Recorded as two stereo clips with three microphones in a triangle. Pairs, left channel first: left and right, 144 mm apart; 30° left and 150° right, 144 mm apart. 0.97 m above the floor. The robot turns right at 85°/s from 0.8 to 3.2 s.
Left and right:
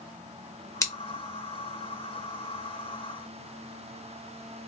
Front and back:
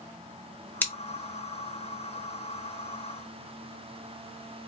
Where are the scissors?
85° left, 0.7 m; by 0.9 s 90° left, 0.7 m.